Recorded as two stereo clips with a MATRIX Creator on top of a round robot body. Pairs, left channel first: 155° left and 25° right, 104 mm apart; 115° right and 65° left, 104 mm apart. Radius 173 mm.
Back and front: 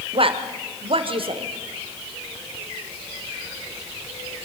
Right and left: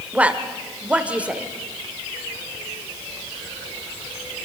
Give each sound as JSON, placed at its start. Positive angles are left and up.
{"t": 0.1, "sound": "a woman speaking", "azimuth_deg": -10, "distance_m": 1.9}